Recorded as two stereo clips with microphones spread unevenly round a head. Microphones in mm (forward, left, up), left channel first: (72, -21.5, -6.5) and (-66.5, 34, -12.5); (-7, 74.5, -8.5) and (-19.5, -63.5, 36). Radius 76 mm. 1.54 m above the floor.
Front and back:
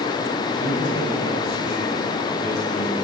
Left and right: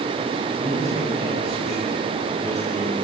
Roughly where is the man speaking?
Ahead.